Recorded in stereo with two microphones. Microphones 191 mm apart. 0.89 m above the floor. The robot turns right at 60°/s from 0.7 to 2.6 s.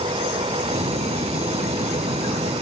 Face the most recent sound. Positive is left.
No sound to turn to.